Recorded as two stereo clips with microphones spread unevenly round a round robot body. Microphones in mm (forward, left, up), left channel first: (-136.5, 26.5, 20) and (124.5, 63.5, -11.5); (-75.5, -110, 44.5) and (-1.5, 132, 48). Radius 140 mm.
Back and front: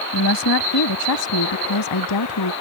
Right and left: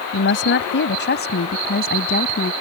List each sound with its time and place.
0.1 s a woman speaking: 140° right; by 2.5 s 160° right